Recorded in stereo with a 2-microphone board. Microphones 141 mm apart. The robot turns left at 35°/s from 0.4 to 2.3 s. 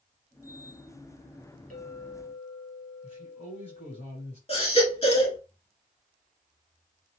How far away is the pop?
I don't hear a pop.